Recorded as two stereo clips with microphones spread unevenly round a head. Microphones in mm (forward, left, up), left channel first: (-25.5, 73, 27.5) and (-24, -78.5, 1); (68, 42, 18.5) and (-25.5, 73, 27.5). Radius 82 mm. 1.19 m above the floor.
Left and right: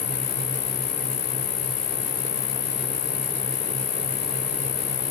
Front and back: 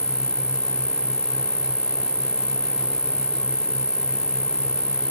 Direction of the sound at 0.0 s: 80° left.